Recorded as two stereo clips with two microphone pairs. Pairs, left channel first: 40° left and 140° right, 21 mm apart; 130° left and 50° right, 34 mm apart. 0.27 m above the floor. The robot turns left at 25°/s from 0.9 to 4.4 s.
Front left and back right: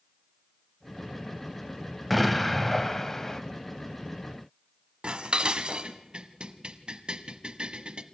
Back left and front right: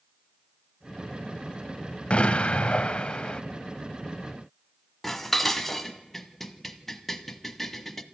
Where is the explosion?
125° left, 1.2 m; by 3.4 s 95° left, 1.2 m.